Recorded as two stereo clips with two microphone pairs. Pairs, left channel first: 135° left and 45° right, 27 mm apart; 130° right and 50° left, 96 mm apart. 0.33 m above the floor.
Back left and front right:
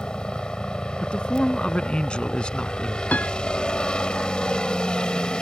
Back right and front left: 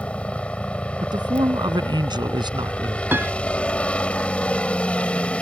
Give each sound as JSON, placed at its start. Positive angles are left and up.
{"t": 0.0, "sound": "a helicopter", "azimuth_deg": 160}
{"t": 1.0, "sound": "a man speaking", "azimuth_deg": 85}
{"t": 3.1, "sound": "a piano", "azimuth_deg": 115}